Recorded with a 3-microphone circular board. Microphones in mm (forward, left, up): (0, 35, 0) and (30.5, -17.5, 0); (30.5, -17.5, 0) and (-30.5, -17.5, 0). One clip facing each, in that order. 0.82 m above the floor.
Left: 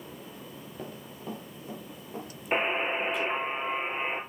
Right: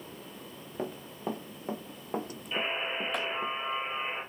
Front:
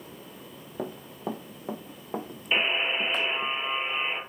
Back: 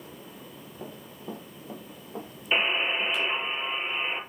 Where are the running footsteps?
5° right, 3 m; by 3.5 s 50° right, 2.5 m.